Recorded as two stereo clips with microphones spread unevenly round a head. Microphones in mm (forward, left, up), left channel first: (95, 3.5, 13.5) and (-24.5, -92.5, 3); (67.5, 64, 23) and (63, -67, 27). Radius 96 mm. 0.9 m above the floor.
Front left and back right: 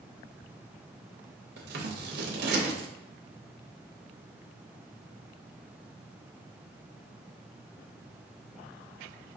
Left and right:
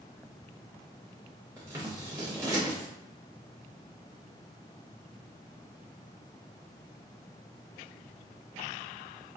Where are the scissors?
165° right, 0.8 m.